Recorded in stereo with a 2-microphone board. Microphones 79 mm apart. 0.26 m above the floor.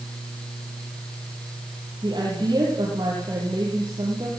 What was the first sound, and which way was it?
A woman speaking, 65° right (ahead or behind).